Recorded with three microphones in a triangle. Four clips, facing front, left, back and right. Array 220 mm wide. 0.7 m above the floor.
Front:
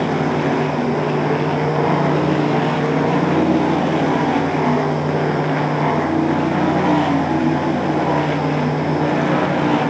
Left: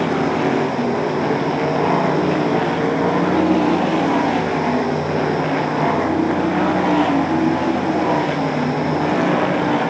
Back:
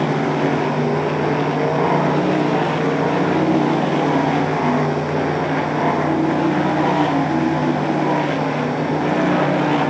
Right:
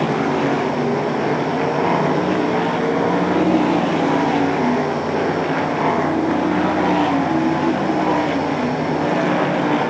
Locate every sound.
Only background noise.